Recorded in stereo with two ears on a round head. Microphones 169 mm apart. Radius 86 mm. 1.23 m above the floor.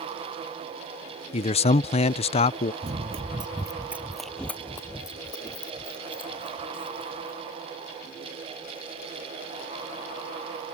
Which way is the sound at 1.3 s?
35° left (ahead or behind).